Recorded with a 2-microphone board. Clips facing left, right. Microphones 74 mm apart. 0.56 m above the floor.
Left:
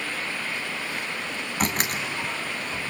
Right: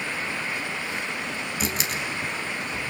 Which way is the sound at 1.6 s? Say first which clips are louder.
Left 4 dB; 50° left (ahead or behind).